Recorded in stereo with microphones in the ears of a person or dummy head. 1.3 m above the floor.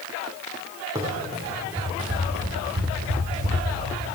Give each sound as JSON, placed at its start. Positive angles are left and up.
{"t": 0.9, "sound": "running footsteps", "side_deg": -20, "distance_m": 3.0}